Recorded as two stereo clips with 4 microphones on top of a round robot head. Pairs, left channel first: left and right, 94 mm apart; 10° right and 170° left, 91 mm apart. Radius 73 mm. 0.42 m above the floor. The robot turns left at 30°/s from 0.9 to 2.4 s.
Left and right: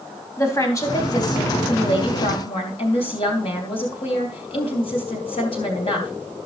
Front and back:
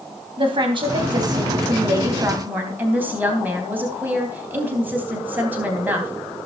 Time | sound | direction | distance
0.4 | a woman speaking | 145° left | 3.5 m